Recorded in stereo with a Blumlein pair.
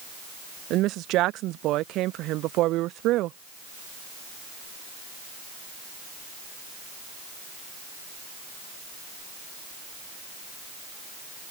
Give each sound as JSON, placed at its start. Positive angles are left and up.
{"t": 0.7, "sound": "a woman speaking", "azimuth_deg": -35}